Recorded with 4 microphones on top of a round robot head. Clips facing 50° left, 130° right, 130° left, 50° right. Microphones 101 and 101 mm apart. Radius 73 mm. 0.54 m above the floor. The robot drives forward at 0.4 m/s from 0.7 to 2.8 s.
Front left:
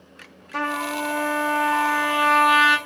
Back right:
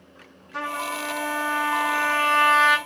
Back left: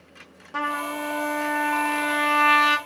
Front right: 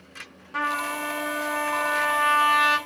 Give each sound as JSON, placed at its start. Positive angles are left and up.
{"t": 0.5, "sound": "a trumpet", "azimuth_deg": 75, "distance_m": 0.7}